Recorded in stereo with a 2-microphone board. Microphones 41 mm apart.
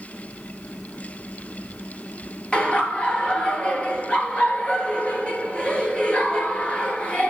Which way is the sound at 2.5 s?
25° left (ahead or behind).